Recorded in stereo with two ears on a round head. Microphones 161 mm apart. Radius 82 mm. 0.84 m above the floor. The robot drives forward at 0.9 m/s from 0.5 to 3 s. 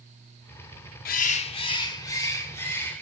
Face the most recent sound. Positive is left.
turn(degrees=15)  # may be behind; listen again after turning